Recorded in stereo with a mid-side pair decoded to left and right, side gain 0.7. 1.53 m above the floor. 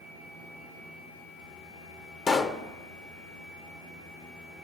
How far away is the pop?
About 0.9 m.